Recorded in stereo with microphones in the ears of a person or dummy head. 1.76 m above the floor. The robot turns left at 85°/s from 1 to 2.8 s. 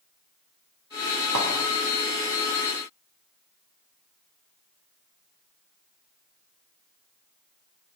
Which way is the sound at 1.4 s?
65° right (ahead or behind).